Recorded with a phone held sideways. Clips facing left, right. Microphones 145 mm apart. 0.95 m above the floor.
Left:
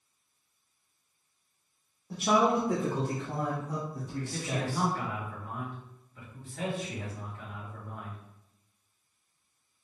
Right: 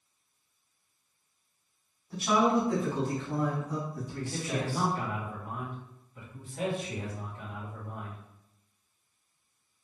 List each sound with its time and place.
2.1 s a man speaking: 75° left (ahead or behind), 1.1 m; by 4.9 s 60° left (ahead or behind), 2.5 m
4.2 s a man speaking: 15° right (ahead or behind), 1.5 m